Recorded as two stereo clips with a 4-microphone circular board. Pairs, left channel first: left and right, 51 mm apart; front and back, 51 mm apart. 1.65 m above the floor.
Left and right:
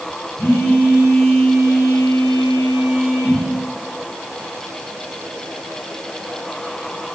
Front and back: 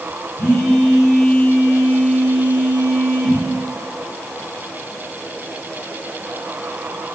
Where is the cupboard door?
No cupboard door in this recording.